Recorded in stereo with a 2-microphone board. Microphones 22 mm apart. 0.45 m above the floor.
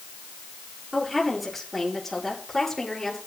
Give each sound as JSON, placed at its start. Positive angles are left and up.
{"t": 0.9, "sound": "a woman speaking", "side_deg": -5, "distance_m": 8.5}